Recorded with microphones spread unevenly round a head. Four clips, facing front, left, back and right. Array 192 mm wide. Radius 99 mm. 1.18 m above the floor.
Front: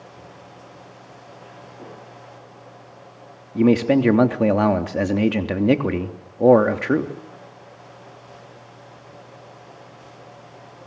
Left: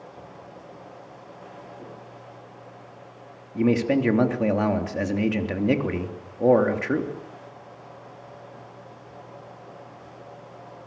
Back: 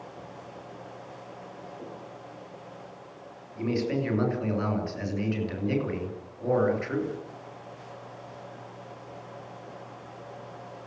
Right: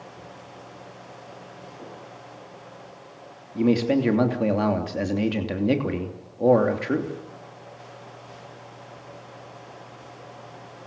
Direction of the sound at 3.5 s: Straight ahead.